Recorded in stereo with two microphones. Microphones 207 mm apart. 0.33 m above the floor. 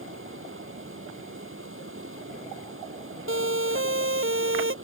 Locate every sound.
0.0 s running water: 85° right
3.3 s a siren: 80° right